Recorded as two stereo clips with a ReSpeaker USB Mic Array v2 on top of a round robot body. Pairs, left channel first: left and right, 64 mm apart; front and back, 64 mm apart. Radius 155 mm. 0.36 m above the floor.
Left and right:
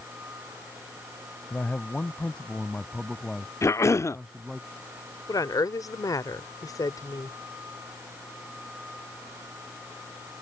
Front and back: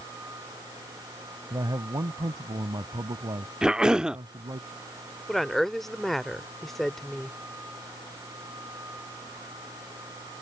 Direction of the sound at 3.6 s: 105° left.